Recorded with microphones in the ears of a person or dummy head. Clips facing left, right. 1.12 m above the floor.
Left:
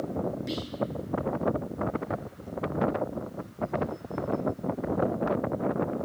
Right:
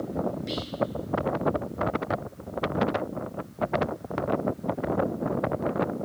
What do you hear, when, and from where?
0.5 s whispering: centre (ahead or behind), 0.7 m